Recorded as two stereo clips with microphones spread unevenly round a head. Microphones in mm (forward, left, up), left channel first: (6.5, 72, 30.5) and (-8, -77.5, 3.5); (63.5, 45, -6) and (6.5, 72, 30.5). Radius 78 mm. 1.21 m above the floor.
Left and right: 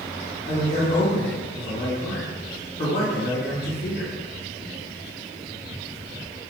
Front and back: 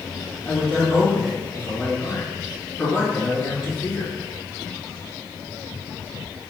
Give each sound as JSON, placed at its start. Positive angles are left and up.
{"t": 0.5, "sound": "a man speaking", "azimuth_deg": 40, "distance_m": 2.0}